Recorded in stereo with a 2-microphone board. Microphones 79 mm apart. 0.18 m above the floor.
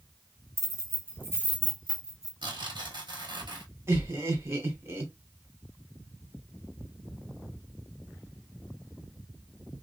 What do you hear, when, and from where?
0.6 s keys jangling: 40° right (ahead or behind), 0.9 m; by 2.3 s 5° right (ahead or behind), 1.1 m
2.4 s tearing paper: 80° right, 1.0 m
3.9 s laughter: 35° right (ahead or behind), 1.4 m